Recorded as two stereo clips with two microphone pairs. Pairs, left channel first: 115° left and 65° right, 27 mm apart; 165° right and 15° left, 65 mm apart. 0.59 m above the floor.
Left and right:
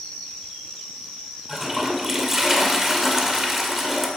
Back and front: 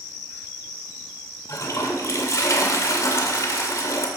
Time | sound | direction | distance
1.5 | a toilet flushing | 145° right | 2 m